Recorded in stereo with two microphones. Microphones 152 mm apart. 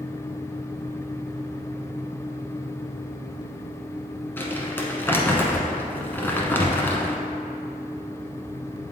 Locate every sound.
4.4 s crumpling: 15° left (ahead or behind), 0.9 m